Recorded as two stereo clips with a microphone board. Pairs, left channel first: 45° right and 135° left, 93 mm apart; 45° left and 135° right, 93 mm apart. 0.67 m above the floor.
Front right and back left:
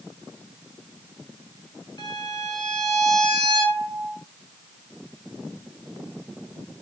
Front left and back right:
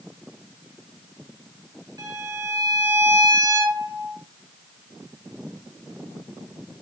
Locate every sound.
2.0 s a violin: 90° right, 3.5 m